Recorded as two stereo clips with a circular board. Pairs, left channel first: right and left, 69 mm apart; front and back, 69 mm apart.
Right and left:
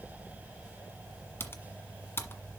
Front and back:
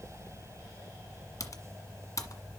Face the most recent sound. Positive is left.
turn(degrees=-35)